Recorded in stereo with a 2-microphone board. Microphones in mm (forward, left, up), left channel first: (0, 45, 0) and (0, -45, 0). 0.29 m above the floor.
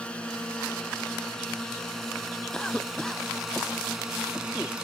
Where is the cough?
10° left (ahead or behind).